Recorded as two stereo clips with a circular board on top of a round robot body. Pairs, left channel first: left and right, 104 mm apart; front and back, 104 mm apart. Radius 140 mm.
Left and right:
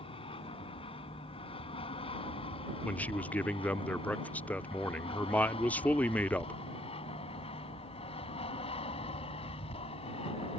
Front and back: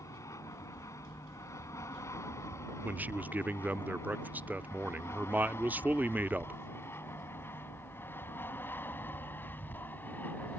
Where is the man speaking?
140° left.